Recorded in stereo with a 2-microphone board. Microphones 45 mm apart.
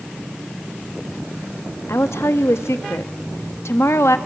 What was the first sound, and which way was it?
A woman speaking, 75° left (ahead or behind).